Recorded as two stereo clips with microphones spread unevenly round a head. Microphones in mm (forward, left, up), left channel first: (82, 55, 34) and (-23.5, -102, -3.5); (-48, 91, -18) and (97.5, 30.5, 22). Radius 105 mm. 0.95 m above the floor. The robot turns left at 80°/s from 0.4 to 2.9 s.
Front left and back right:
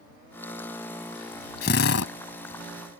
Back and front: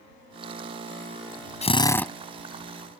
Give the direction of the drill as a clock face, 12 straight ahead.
8 o'clock.